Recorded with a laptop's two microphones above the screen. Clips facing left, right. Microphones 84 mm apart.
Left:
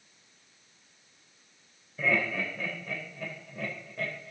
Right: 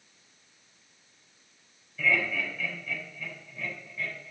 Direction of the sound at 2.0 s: 35° left (ahead or behind).